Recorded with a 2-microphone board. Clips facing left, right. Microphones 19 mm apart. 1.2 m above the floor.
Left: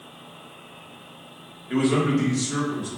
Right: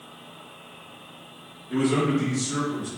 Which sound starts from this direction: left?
A man speaking, at 1.7 s.